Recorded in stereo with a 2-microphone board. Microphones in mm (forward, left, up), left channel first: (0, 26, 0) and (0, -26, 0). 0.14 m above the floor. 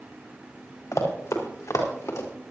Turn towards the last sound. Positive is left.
turn(degrees=75)  # may be behind; listen again after turning